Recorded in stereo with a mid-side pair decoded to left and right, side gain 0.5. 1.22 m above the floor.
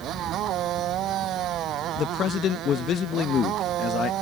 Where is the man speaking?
55° left.